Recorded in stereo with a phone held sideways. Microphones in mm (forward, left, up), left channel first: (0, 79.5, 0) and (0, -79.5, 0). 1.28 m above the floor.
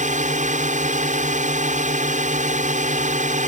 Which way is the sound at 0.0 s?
50° right (ahead or behind).